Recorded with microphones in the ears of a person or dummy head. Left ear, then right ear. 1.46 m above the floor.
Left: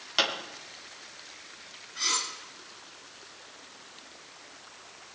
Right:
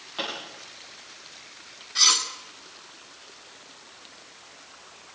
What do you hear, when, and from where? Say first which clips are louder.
0.2 s a pop: left 5 dB; 75° left (ahead or behind), 4.5 m
1.9 s cutlery clinking: right 9 dB; 65° right (ahead or behind), 2 m